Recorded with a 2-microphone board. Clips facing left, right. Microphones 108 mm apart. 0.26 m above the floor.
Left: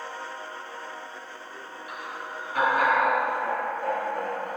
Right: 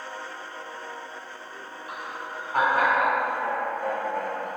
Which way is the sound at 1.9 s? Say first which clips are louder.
Right 1 dB; 35° right (ahead or behind).